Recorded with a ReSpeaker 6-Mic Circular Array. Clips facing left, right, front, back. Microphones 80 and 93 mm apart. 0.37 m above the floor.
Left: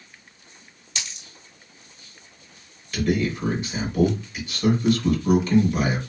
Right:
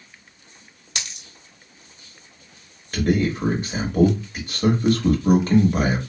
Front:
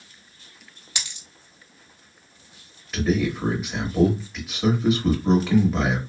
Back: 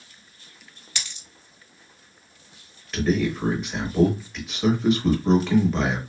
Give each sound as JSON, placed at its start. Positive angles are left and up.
{"t": 0.9, "sound": "a dropped coin", "azimuth_deg": -70, "distance_m": 1.1}
{"t": 2.9, "sound": "a man speaking", "azimuth_deg": -85, "distance_m": 1.1}